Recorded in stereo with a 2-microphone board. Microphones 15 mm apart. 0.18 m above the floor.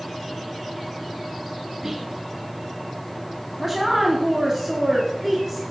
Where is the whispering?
10° right (ahead or behind), 1.2 m.